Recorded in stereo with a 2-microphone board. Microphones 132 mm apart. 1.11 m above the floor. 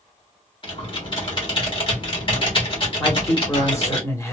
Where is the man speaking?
20° left (ahead or behind), 1.4 m.